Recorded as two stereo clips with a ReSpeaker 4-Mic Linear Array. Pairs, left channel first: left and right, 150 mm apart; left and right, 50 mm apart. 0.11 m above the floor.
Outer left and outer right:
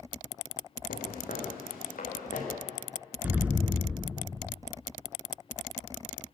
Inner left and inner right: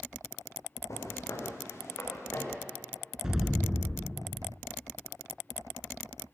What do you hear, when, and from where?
0.9 s footsteps: 70° left (ahead or behind), 8 m; by 2.5 s 65° left (ahead or behind), 10 m
3.2 s an explosion: 10° right (ahead or behind), 0.8 m